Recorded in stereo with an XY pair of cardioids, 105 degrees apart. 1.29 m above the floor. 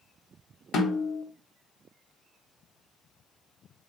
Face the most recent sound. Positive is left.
turn(degrees=70)